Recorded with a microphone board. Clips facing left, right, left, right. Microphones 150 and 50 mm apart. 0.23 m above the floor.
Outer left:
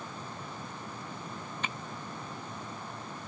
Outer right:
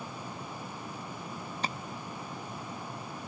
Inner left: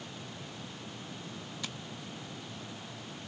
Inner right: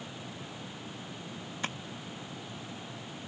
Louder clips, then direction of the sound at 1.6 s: Outer right 4 dB, inner right 7 dB; 35° right (ahead or behind).